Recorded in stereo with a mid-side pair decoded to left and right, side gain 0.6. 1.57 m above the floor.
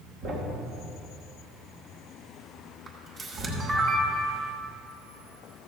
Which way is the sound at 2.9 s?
45° right.